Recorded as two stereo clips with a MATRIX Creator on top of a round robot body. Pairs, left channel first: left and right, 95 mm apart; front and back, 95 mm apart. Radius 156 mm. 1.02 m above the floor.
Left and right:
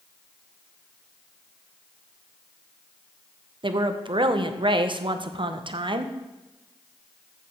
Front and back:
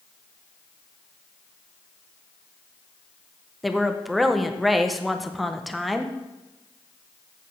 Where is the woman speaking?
90° right, 1.1 m.